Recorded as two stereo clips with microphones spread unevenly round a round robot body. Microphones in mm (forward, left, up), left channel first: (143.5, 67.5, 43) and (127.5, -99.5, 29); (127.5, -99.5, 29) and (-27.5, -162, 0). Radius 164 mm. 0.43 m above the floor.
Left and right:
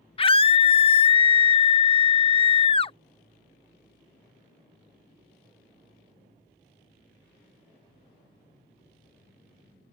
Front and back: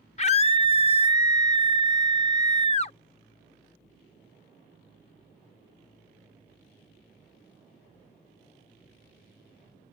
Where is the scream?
50° left.